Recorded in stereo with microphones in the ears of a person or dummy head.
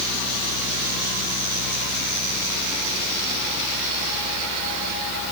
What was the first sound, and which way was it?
Only background noise.